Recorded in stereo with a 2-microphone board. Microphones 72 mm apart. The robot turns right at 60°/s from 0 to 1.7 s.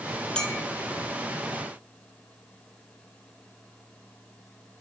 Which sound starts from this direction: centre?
A clink, at 0.3 s.